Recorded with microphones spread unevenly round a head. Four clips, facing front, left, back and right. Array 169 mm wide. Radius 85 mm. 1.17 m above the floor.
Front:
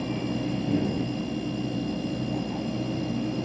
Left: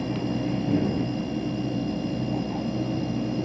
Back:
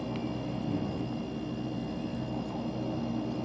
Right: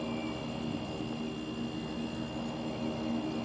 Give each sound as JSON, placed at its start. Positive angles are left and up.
{"t": 0.0, "sound": "a machine running", "azimuth_deg": 50}